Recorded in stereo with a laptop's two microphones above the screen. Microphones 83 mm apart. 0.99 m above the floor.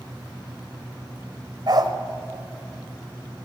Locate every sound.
1.7 s a dog barking: 50° right (ahead or behind), 1.7 m